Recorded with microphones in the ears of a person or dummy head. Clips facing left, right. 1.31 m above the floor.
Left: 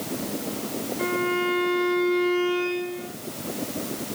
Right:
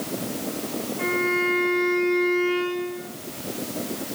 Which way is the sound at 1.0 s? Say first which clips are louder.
Even; centre (ahead or behind).